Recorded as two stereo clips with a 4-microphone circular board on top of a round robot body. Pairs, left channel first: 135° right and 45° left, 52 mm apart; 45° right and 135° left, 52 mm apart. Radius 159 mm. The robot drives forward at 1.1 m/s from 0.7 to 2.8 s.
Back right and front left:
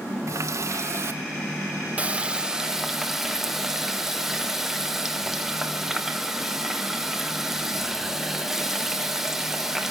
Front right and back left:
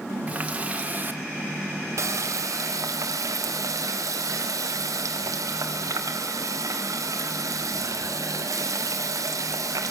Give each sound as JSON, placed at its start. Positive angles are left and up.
{"t": 0.3, "sound": "a running tap", "azimuth_deg": 70, "distance_m": 2.0}